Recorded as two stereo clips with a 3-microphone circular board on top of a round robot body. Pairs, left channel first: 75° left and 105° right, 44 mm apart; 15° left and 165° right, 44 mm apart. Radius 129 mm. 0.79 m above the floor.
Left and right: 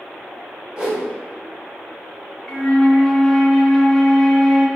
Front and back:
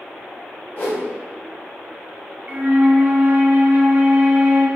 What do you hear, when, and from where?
0.8 s a whoosh: 35° right, 1.7 m
2.5 s a flute: 155° left, 0.9 m